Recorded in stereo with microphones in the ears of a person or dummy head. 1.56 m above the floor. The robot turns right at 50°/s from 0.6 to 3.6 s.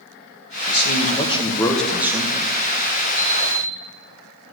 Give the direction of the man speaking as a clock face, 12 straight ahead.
8 o'clock.